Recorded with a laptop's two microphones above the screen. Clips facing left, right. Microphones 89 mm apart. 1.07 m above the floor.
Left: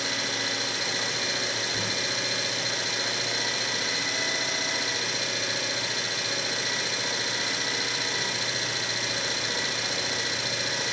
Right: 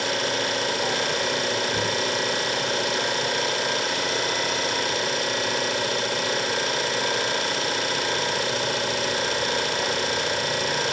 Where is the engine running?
60° right (ahead or behind), 3.5 m.